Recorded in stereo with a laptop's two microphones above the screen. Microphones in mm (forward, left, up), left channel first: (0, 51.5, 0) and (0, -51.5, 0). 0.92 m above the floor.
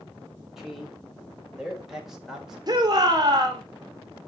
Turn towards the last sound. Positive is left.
turn(degrees=-40)  # may be behind; listen again after turning